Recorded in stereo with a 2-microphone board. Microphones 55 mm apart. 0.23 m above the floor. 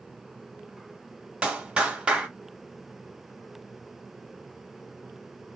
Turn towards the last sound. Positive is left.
turn(degrees=-20)  # may be behind; listen again after turning